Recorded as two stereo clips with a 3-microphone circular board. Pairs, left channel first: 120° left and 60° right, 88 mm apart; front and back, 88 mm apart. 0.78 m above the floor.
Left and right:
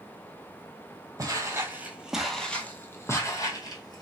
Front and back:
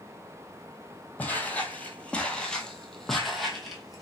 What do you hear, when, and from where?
1.2 s footsteps: 65° right, 1.0 m; by 4.0 s 90° left, 1.4 m